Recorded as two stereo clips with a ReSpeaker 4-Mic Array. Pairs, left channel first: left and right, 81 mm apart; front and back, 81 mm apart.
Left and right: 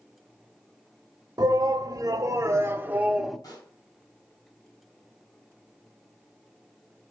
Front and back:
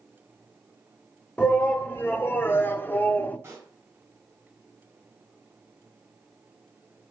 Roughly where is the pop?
Behind left.